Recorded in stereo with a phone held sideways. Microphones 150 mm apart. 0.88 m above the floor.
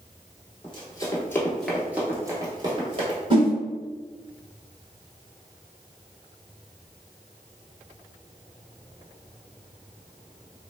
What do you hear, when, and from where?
0.6 s running footsteps: 35° left (ahead or behind), 1.0 m; by 3.2 s 45° right (ahead or behind), 1.2 m
3.3 s a whoosh: 40° right (ahead or behind), 1.2 m